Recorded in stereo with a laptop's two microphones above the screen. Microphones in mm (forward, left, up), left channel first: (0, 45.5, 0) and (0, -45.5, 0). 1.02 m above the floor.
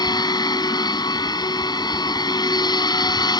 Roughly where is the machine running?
Left.